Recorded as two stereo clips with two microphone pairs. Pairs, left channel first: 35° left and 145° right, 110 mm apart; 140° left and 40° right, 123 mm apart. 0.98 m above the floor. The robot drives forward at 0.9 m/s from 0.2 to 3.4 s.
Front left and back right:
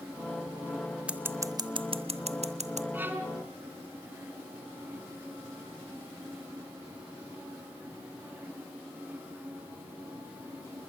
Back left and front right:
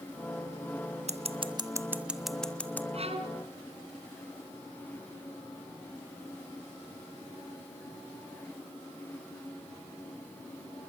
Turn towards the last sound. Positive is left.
turn(degrees=-80)